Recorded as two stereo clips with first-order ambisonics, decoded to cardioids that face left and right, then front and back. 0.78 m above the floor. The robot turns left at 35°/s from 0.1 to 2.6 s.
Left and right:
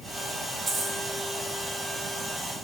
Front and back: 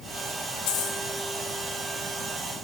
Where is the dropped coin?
20° right, 2.5 m; by 1.0 s 30° right, 2.5 m.